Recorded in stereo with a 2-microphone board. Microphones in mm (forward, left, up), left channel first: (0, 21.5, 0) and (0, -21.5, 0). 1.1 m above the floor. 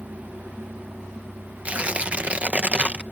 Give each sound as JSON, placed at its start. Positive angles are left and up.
{"t": 0.0, "sound": "a vehicle", "side_deg": -80}
{"t": 1.6, "sound": "tearing paper", "side_deg": -35}